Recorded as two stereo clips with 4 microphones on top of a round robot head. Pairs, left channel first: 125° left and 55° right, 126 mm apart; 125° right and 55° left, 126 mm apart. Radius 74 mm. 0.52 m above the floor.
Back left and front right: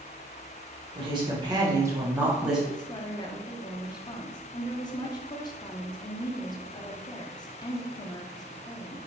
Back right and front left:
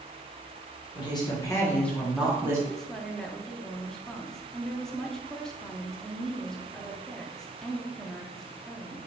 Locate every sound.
0.9 s a woman speaking: 90° right, 1.5 m; by 2.6 s 25° left, 1.1 m
2.7 s a woman speaking: 150° left, 0.8 m